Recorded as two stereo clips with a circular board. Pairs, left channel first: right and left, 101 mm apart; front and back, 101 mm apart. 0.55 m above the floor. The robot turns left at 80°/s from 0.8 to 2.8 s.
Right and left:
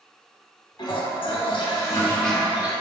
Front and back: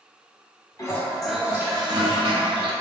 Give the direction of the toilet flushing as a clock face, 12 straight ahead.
2 o'clock.